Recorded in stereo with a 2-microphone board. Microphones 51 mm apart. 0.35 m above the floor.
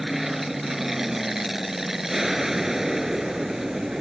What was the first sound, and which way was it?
An aircraft, 5° right (ahead or behind).